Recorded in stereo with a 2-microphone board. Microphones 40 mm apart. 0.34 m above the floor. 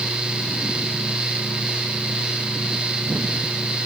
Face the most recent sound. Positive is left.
No sound to turn to.